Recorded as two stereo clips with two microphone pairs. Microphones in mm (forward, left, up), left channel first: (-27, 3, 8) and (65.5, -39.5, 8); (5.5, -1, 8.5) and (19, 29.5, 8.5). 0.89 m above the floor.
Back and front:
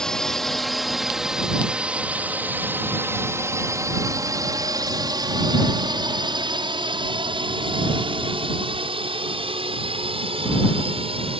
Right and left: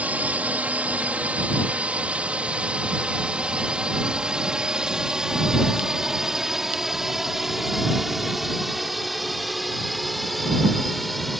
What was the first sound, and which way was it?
A drone, 75° left.